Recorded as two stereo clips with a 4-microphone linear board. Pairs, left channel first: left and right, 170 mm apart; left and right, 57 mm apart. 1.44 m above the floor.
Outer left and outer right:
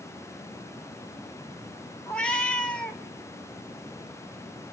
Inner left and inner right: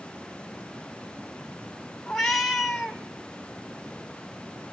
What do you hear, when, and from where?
2.1 s a cat meowing: 5° left (ahead or behind), 1.6 m